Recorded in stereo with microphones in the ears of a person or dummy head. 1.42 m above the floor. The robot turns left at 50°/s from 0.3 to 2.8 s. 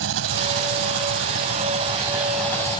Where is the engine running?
75° right; by 2.8 s 160° left.